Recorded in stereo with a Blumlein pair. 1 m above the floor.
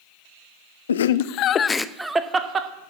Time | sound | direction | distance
0.9 | laughter | 70° left | 0.6 m